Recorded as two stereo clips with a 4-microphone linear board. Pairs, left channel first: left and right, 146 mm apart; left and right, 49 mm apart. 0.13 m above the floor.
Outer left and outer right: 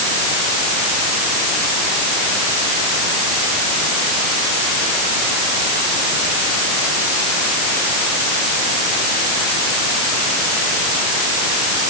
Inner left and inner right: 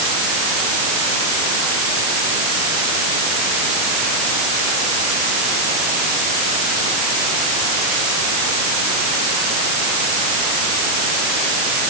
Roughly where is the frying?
I don't hear frying.